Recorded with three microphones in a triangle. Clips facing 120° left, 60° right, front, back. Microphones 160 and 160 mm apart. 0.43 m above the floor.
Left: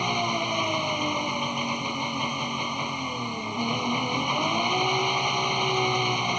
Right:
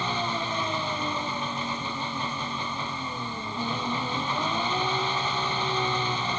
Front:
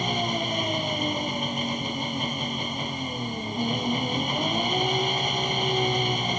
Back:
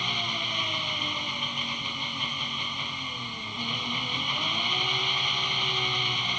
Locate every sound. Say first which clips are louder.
0.0 s an engine running: left 2 dB, front 9 dB; 45° left